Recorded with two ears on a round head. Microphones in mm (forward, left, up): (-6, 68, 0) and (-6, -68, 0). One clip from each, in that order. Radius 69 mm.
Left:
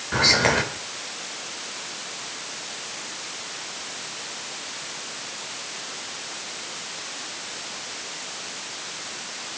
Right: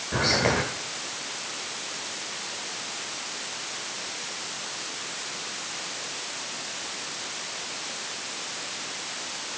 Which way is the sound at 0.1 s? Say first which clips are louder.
Left 5 dB; 40° left (ahead or behind).